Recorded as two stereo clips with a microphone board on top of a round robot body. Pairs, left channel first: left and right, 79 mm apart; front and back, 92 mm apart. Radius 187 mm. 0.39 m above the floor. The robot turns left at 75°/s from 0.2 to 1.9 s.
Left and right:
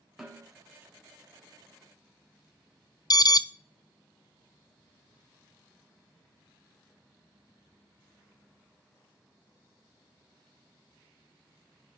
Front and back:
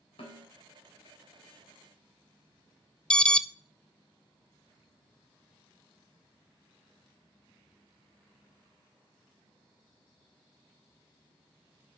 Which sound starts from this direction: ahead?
A snare drum, at 0.2 s.